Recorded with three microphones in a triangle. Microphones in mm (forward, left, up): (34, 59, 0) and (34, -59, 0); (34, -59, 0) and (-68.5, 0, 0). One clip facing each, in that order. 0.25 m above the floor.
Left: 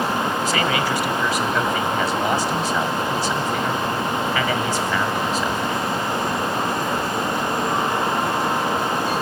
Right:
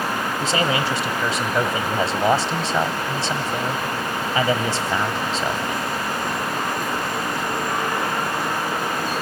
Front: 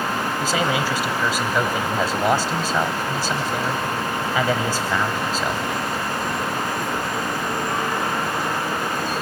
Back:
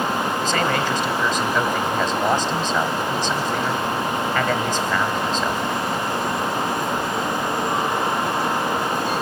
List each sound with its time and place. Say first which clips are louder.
0.4 s a man speaking: even, front 2 dB; 105° right, 1.1 m